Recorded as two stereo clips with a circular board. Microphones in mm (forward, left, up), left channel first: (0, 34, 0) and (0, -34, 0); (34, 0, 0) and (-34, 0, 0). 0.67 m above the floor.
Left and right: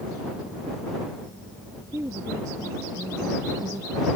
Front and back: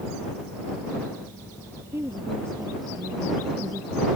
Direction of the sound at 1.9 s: 135° right.